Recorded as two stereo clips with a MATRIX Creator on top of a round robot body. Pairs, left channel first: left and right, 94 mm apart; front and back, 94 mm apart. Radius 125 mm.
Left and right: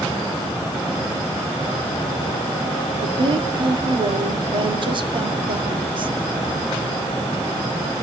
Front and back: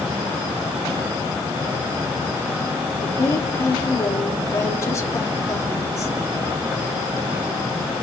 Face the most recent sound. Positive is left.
turn(degrees=-60)